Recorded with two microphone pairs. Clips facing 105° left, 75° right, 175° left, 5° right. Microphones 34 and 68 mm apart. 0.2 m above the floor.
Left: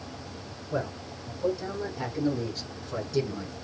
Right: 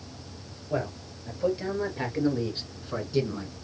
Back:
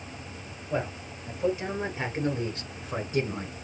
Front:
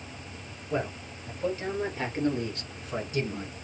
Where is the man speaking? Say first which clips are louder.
Right 1 dB, even; 105° right, 3 m; by 3.5 s 150° right, 1.4 m.